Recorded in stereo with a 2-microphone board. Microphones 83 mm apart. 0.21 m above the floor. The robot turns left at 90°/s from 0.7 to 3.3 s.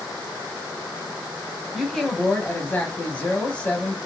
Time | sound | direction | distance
1.7 | a woman speaking | 5° right (ahead or behind) | 1.0 m